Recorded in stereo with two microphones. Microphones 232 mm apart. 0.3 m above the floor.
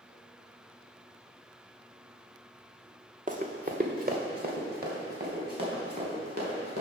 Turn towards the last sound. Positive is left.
turn(degrees=-40)  # may be behind; listen again after turning